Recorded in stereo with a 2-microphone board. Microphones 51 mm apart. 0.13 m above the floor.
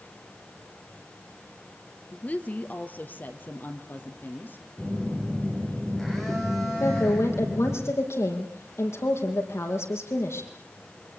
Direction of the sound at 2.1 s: 30° left (ahead or behind).